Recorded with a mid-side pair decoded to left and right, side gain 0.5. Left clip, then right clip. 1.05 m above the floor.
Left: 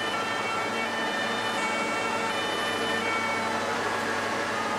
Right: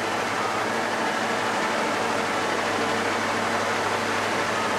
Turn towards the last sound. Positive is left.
turn(degrees=-40)